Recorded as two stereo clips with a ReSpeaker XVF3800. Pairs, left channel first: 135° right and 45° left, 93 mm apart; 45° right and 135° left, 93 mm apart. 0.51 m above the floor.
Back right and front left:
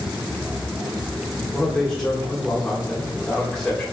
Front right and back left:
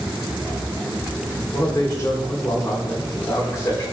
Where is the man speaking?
55° right, 1.6 m.